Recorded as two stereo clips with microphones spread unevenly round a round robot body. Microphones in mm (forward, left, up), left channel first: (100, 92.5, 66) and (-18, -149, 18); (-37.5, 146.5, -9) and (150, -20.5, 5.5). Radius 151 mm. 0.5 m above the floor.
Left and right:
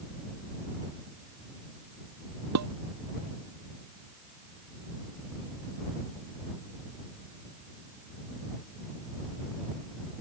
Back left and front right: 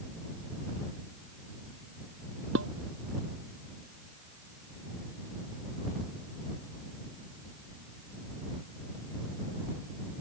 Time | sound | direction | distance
2.5 | dishes clattering | 95° right | ?